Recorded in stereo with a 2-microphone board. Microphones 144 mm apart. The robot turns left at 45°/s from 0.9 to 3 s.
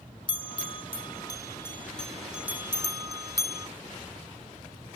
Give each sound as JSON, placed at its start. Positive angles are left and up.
{"t": 0.3, "sound": "a bell", "side_deg": 35}